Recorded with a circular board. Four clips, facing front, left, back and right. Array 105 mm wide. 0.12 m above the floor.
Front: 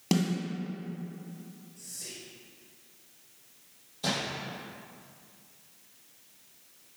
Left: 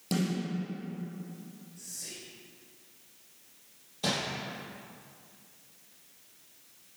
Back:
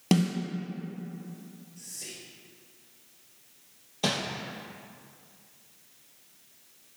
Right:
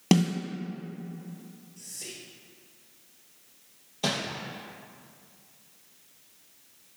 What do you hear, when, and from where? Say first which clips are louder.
0.1 s a snare drum: right 8 dB, back 3 dB; 105° right, 2.5 m
1.8 s whispering: right 3 dB, back 1 dB; 115° right, 2 m
4.0 s crumpling: right 2 dB, back 3 dB; 155° right, 3 m